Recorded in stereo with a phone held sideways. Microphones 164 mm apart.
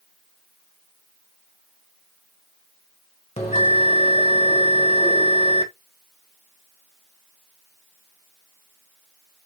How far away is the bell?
About 1.6 m.